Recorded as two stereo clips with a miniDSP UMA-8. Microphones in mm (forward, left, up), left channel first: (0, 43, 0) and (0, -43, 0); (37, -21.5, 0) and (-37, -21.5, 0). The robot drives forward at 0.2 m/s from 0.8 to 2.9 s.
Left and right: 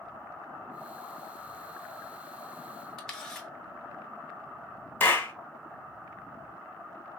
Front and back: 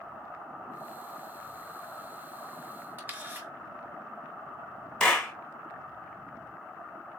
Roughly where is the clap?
Left.